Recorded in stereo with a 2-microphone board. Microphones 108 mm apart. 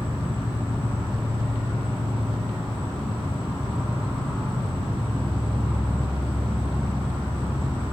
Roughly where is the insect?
Right.